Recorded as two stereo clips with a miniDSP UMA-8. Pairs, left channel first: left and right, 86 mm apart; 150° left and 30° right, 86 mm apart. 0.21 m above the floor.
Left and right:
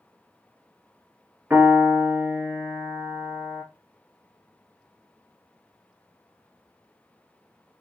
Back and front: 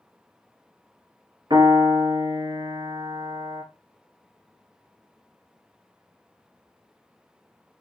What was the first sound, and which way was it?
A piano, 20° right.